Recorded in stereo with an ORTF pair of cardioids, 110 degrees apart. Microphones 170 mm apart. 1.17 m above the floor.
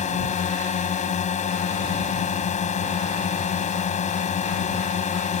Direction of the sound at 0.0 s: 45° left.